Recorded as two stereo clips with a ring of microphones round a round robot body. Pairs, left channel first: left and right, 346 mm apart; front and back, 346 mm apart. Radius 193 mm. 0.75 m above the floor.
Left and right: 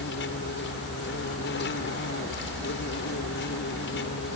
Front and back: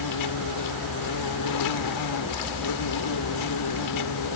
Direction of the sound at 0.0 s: 30° left.